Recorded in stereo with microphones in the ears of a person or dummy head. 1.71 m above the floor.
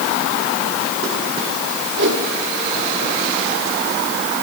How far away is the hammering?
I don't hear hammering.